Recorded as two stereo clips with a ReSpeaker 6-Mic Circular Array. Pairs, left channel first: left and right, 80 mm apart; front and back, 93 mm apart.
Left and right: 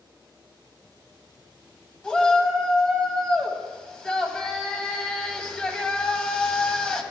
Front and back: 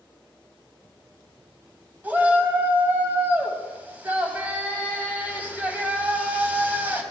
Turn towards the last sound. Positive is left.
turn(degrees=145)